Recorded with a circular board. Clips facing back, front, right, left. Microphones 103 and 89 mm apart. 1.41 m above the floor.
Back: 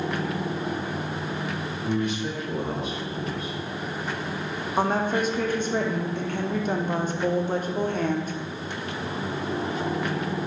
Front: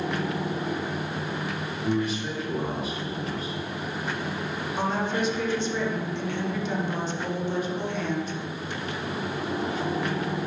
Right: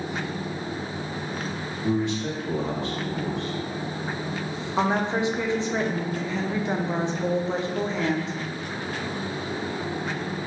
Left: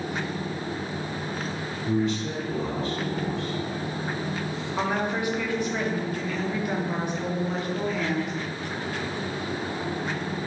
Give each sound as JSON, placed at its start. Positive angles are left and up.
{"t": 1.8, "sound": "a man speaking", "azimuth_deg": -90, "distance_m": 1.2}
{"t": 4.8, "sound": "a woman speaking", "azimuth_deg": -150, "distance_m": 0.5}